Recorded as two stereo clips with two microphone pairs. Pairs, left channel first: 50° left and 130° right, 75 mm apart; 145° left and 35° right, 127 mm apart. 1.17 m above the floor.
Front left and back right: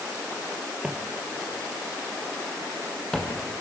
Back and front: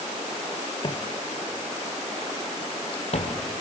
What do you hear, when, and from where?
0.8 s footsteps: 160° left, 1.5 m; by 3.4 s 120° left, 3 m